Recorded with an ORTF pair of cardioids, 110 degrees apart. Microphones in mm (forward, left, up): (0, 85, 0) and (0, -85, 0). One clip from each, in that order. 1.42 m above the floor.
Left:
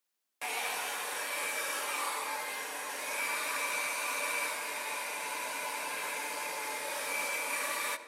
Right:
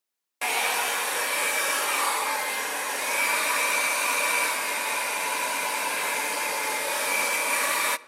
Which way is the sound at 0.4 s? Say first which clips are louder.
Right 10 dB; 45° right.